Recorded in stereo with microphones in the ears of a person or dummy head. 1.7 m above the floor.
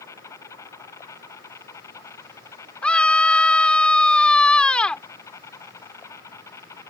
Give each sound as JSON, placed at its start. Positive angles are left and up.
{"t": 0.0, "sound": "an insect", "side_deg": 15}
{"t": 2.8, "sound": "a scream", "side_deg": 5}